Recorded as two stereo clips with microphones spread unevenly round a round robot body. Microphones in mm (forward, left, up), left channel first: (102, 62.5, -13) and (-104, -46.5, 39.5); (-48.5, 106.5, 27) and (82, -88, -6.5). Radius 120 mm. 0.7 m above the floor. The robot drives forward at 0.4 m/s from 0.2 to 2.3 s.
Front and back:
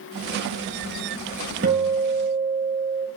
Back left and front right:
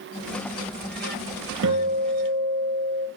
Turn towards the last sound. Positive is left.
turn(degrees=-100)